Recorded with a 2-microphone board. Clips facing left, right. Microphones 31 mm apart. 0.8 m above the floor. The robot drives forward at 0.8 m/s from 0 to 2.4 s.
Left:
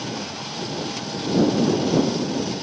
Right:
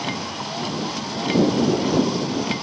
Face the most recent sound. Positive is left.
turn(degrees=-65)  # may be behind; listen again after turning